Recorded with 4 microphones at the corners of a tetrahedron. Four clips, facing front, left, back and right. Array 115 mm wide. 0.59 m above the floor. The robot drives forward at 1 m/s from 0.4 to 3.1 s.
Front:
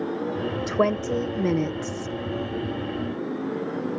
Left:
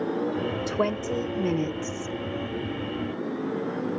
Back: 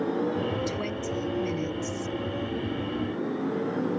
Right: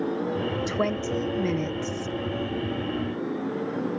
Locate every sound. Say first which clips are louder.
0.7 s a woman speaking: even, front 8 dB; 10° left; by 2.2 s 20° left